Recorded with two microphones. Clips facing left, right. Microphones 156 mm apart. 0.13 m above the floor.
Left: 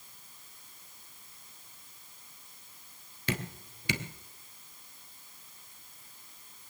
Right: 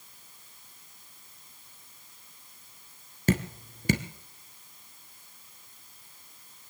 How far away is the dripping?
About 1.2 m.